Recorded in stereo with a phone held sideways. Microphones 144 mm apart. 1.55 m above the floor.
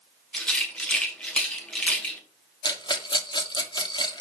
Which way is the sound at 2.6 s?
35° left (ahead or behind).